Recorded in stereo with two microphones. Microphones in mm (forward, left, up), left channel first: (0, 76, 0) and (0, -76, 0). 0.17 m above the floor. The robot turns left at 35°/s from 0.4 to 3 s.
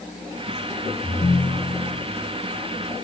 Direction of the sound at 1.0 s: 135° left.